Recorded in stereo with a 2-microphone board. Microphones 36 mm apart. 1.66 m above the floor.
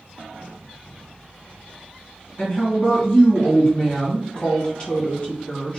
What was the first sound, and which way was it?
A woman speaking, 30° left (ahead or behind).